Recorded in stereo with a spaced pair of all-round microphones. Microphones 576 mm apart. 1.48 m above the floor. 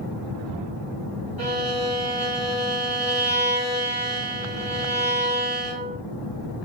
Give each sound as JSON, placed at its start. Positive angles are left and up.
{"t": 1.4, "sound": "a violin", "side_deg": -40, "distance_m": 1.2}